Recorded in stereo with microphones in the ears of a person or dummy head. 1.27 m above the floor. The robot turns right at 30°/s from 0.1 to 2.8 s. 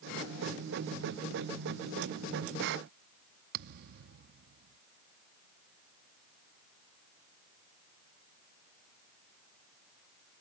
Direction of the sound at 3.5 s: 55° right (ahead or behind).